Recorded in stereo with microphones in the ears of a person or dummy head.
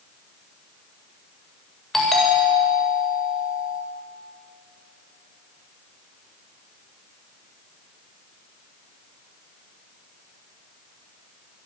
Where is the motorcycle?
No motorcycle in this recording.